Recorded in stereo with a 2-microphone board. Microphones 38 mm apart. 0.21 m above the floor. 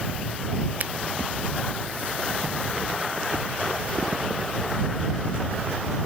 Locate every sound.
0.8 s a finger snap: 50° right (ahead or behind)